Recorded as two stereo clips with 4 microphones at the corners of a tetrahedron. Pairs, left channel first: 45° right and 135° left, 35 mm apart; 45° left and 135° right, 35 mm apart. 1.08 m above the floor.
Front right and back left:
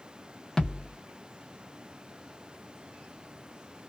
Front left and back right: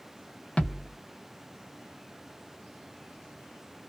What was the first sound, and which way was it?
A thud, 25° left.